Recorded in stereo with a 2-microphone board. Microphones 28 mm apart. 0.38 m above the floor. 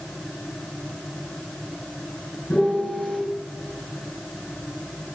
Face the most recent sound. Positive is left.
turn(degrees=75)  # may be behind; listen again after turning